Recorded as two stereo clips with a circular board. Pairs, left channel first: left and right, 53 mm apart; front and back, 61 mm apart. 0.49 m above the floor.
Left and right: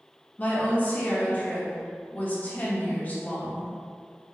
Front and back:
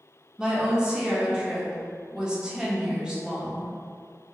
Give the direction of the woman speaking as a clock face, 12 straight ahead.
8 o'clock.